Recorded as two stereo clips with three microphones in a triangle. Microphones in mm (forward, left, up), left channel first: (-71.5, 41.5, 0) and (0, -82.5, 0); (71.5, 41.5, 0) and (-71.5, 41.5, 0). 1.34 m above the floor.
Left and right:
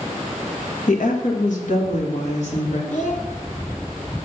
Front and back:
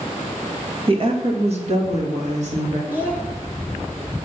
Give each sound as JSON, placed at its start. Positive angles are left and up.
{"t": 0.9, "sound": "a woman speaking", "azimuth_deg": 135, "distance_m": 1.9}
{"t": 2.9, "sound": "a child speaking", "azimuth_deg": 105, "distance_m": 1.6}